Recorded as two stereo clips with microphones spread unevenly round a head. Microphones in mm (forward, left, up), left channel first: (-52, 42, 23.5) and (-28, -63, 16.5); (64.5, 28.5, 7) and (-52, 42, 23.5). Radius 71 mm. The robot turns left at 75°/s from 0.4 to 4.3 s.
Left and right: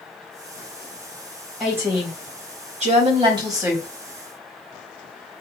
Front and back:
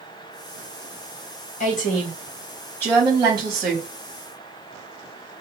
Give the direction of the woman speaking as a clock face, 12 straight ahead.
12 o'clock.